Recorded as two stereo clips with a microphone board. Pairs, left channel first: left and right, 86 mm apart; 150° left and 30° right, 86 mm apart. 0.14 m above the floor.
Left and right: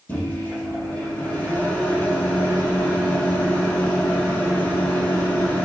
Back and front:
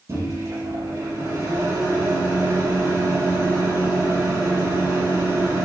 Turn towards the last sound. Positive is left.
turn(degrees=25)